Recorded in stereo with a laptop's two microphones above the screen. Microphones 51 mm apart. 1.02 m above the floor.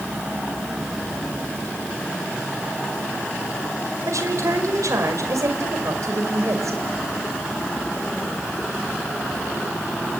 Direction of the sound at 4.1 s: 80° right.